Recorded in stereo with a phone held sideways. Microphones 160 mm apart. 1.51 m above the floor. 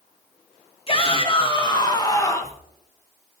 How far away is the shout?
About 2 m.